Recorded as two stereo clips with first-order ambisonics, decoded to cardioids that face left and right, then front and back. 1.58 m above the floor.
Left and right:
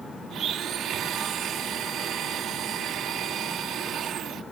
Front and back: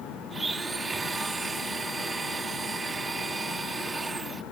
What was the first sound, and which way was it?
A blender, 110° right.